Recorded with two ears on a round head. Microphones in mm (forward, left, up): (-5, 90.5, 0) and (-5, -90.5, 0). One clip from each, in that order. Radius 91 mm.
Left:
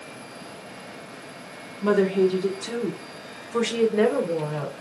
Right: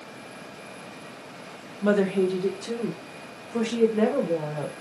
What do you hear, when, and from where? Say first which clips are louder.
1.8 s a woman speaking: left 2 dB; 15° right (ahead or behind), 0.9 m; by 4.7 s 50° left (ahead or behind), 1.7 m